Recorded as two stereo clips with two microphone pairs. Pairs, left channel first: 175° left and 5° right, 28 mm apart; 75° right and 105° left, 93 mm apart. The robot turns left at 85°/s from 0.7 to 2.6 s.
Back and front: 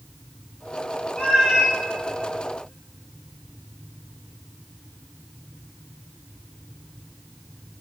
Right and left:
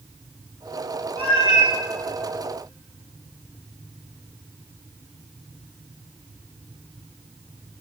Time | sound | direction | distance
1.2 | a cat meowing | 125° left | 3 m